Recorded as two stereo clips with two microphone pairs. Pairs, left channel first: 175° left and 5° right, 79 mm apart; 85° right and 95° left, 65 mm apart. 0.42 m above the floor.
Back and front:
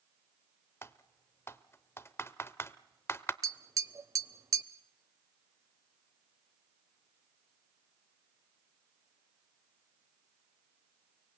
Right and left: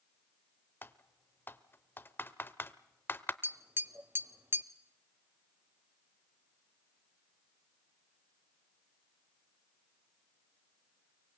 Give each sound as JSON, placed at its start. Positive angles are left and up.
{"t": 0.8, "sound": "typing on a keyboard", "azimuth_deg": -135, "distance_m": 0.7}
{"t": 3.4, "sound": "tapping", "azimuth_deg": 45, "distance_m": 0.6}